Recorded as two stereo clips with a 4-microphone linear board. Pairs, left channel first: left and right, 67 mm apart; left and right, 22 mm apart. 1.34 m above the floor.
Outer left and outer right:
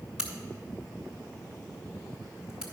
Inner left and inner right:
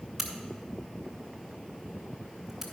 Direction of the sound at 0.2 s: 10° right (ahead or behind).